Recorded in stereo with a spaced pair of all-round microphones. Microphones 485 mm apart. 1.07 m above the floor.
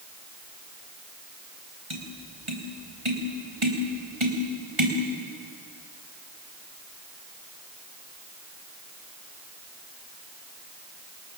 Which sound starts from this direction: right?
Tapping, at 1.9 s.